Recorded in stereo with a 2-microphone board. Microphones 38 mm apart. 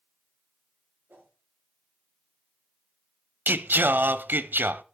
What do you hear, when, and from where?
1.1 s a whoosh: 60° right (ahead or behind), 7 m
3.5 s singing: 60° right (ahead or behind), 0.7 m